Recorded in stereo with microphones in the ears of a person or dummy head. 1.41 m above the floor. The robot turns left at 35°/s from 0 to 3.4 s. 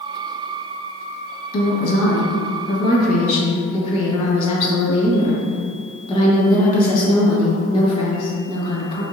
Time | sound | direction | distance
1.5 | a woman speaking | 100° left | 1.1 m